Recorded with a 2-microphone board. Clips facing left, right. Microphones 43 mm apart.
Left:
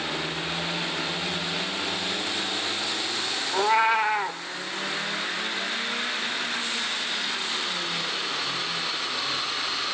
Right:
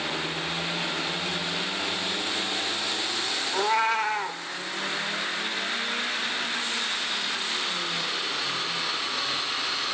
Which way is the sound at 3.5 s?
15° left (ahead or behind).